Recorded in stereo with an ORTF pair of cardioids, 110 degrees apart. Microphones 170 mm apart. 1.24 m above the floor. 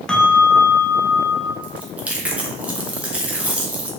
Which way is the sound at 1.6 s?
5° right.